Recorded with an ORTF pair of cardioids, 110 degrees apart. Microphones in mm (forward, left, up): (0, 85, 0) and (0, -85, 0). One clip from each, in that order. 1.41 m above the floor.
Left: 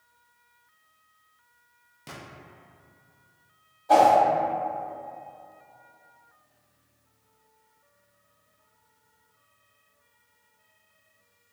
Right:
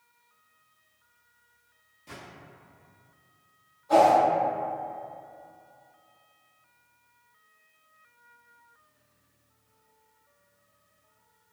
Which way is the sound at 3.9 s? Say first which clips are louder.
Left 2 dB; 60° left.